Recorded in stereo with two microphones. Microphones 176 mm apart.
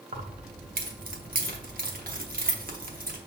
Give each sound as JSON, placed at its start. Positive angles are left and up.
{"t": 0.1, "sound": "keys jangling", "side_deg": -50, "distance_m": 0.8}